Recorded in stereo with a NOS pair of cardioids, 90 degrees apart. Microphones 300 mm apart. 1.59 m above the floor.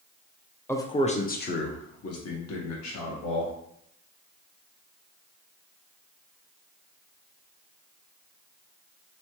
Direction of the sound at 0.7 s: 10° left.